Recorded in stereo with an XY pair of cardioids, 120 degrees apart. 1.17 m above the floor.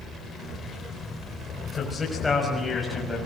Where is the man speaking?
25° left, 5.5 m; by 3.3 s 10° left, 6.5 m.